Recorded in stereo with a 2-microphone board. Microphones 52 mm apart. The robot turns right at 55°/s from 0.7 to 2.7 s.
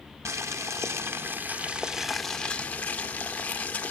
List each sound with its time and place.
0.2 s boiling: 80° right, 1.4 m; by 3.9 s 30° left, 1.4 m